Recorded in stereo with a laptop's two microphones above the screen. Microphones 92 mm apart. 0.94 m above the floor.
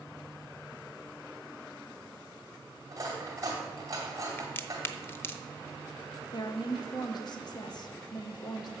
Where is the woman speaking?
50° left (ahead or behind), 0.9 m.